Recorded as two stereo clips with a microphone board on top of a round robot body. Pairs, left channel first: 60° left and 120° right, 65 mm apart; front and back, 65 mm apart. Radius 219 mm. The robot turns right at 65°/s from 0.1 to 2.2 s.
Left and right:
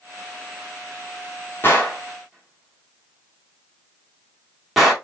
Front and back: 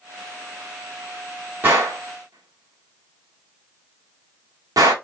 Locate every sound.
1.6 s a gunshot: 115° left, 1.8 m; by 4.9 s 155° left, 1.8 m